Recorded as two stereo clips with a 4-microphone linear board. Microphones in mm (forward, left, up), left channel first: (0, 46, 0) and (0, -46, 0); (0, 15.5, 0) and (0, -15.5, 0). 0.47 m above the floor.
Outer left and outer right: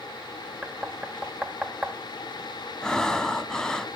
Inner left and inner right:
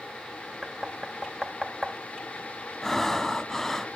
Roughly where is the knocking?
Centre.